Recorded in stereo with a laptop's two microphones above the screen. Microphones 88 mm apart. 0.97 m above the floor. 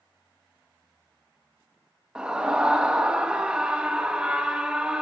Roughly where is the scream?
Centre.